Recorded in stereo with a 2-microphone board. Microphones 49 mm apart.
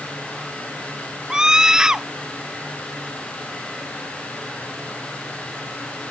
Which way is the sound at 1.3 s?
15° right (ahead or behind).